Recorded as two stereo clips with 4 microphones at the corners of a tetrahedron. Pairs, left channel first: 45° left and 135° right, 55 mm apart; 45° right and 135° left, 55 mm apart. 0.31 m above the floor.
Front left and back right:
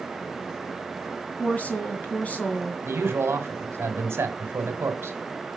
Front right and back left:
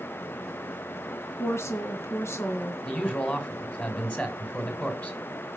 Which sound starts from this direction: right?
A man speaking, at 2.8 s.